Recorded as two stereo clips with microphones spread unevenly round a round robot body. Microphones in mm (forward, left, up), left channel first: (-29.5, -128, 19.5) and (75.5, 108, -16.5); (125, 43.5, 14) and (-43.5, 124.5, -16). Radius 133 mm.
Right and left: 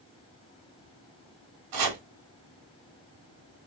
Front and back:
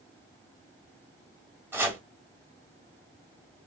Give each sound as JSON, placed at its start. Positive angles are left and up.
{"t": 1.7, "sound": "chopping", "azimuth_deg": 75, "distance_m": 1.5}